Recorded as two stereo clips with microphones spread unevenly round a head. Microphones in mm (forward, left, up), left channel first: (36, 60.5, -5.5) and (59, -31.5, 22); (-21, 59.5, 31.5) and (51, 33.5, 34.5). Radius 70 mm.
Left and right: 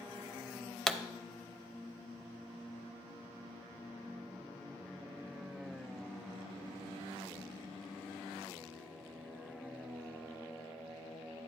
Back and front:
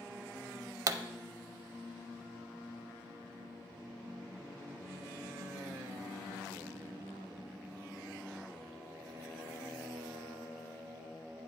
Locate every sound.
0.9 s a pop: 20° left, 0.6 m